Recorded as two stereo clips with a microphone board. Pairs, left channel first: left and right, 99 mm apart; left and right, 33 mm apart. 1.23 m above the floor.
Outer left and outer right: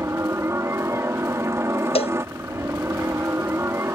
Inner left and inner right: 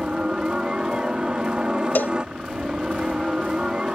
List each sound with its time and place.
0.0 s a helicopter: 25° right (ahead or behind)
1.9 s a cowbell: 75° left (ahead or behind)